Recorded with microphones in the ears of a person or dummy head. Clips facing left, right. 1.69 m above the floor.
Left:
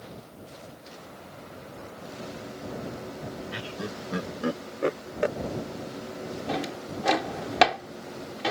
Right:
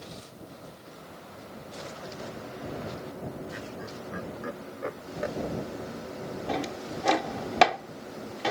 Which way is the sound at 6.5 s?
5° left (ahead or behind).